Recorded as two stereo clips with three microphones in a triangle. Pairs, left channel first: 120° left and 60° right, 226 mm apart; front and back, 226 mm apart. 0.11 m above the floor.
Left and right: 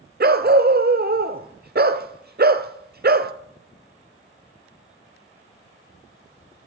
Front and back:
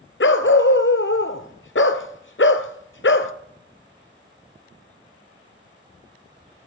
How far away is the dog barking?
About 0.8 m.